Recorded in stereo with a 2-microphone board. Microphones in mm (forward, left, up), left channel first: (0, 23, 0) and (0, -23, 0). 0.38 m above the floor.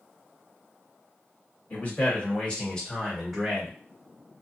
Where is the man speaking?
40° left (ahead or behind), 1.8 m; by 3.8 s 10° right (ahead or behind), 1.4 m.